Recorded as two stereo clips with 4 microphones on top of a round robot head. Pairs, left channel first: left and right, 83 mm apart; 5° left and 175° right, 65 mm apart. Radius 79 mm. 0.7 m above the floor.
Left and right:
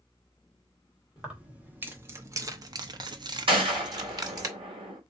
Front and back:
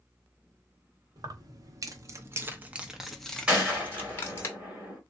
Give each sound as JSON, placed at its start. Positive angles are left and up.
{"t": 1.2, "sound": "keys jangling", "azimuth_deg": -170, "distance_m": 1.2}
{"t": 3.5, "sound": "a gunshot", "azimuth_deg": -100, "distance_m": 1.6}